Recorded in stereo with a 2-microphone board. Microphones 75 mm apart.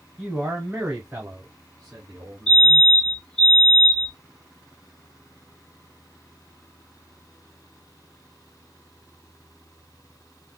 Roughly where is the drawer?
I don't hear a drawer.